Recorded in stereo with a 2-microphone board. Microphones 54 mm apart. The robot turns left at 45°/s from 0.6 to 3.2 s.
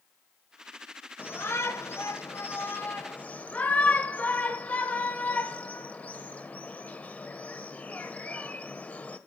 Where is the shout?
40° left (ahead or behind), 1.3 m; by 9.2 s 30° left (ahead or behind), 1.3 m.